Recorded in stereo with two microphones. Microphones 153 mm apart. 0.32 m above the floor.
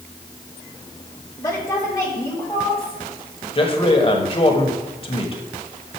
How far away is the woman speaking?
About 1.1 m.